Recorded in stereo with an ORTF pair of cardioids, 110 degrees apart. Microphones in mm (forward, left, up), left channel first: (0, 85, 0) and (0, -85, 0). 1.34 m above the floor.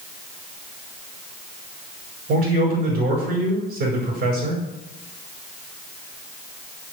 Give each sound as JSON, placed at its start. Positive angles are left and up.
{"t": 2.3, "sound": "a man speaking", "azimuth_deg": -65, "distance_m": 5.0}